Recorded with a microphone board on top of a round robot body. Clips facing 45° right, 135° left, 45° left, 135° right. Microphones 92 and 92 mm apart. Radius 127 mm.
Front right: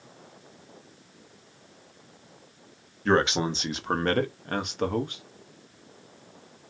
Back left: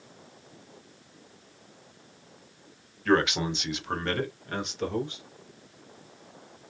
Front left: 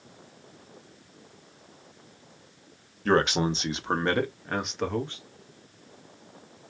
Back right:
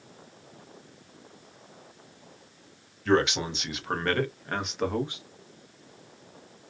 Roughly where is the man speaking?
Ahead.